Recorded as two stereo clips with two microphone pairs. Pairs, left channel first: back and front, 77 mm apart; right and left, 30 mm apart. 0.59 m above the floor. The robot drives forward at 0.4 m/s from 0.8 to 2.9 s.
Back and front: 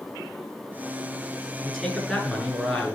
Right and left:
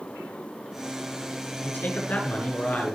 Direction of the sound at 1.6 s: 90° right.